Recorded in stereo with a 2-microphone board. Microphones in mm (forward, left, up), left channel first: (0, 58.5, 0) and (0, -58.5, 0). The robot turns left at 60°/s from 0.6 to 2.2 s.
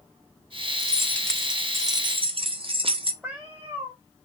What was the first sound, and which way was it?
Keys jangling, 35° left.